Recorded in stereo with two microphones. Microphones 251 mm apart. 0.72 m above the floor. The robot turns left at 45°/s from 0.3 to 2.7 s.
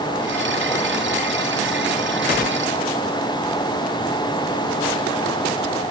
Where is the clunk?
No clunk in this recording.